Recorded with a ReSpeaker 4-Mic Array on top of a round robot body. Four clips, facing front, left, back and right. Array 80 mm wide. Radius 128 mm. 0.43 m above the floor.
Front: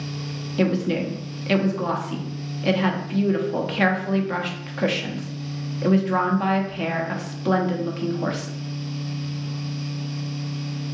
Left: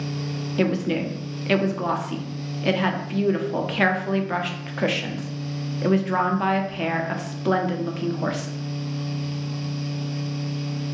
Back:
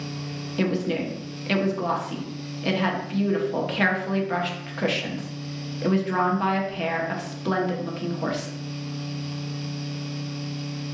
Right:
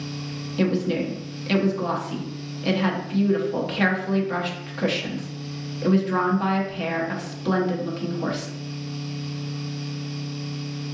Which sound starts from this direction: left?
A woman speaking, at 0.6 s.